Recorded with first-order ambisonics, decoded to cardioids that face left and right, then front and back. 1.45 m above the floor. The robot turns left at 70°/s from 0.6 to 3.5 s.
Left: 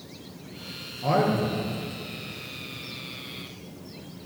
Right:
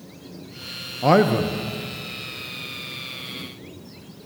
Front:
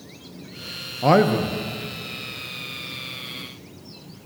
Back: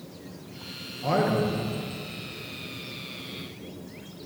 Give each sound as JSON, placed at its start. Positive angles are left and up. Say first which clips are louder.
{"t": 1.0, "sound": "a man speaking", "louder": "right 6 dB, front 7 dB", "azimuth_deg": -40, "distance_m": 0.7}